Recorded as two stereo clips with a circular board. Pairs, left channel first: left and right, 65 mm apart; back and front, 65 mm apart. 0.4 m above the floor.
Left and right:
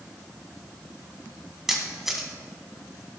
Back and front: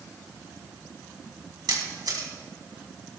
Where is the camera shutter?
5° right, 1.9 m.